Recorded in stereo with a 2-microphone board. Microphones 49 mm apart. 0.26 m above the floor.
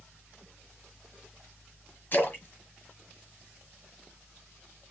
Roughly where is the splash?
Left.